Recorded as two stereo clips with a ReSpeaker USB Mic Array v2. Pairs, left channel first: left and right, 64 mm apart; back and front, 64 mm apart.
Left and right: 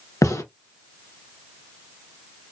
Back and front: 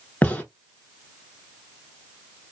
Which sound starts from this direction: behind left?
A gunshot, at 0.2 s.